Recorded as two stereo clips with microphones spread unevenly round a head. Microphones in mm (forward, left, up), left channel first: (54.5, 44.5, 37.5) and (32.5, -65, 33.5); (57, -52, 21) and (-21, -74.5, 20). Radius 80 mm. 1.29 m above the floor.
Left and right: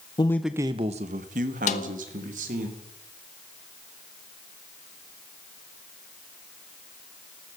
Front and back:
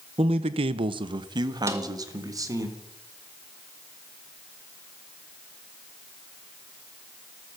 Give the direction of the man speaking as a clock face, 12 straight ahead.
7 o'clock.